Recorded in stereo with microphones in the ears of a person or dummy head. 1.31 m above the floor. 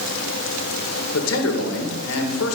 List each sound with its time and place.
1.1 s a man speaking: 75° left (ahead or behind), 1.8 m